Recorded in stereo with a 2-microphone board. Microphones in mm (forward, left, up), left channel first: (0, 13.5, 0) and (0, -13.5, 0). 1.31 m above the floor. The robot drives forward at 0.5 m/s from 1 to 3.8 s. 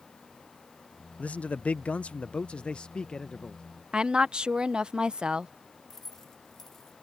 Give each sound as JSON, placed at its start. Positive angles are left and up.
{"t": 1.2, "sound": "a man speaking", "side_deg": 65}
{"t": 3.9, "sound": "a woman speaking", "side_deg": -35}
{"t": 5.9, "sound": "keys jangling", "side_deg": 15}